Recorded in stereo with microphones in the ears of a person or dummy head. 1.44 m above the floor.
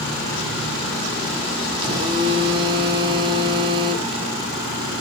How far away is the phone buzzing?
About 0.8 m.